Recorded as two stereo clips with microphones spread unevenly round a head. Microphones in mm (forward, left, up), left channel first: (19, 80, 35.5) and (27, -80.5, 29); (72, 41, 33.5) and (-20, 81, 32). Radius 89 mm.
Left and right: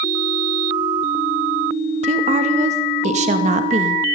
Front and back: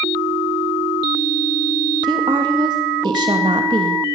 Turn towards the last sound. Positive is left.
turn(degrees=-140)